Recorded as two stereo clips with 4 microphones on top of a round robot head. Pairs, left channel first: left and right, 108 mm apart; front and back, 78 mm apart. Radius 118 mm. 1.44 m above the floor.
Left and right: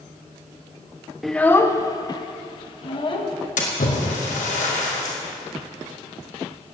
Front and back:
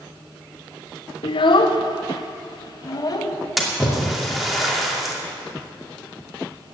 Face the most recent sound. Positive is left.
turn(degrees=95)